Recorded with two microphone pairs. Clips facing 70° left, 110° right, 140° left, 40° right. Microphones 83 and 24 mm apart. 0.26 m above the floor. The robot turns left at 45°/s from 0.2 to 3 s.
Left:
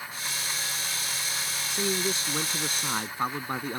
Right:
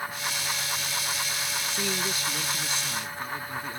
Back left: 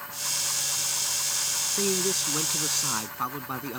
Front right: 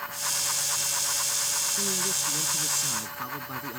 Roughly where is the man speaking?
Behind left.